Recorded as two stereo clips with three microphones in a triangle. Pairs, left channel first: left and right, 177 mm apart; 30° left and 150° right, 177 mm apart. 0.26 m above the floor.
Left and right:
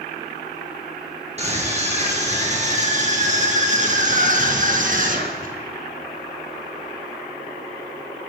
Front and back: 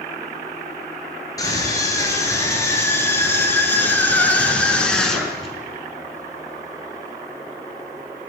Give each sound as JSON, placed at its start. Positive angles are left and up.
{"t": 1.4, "sound": "a scream", "azimuth_deg": -40, "distance_m": 5.5}